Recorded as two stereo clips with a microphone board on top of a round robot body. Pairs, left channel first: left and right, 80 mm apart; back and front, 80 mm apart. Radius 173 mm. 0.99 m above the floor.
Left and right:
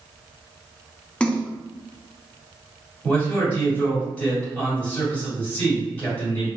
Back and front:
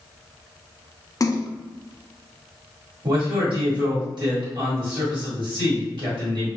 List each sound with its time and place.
1.2 s a splash: 160° left, 0.6 m
3.0 s a man speaking: 20° left, 1.7 m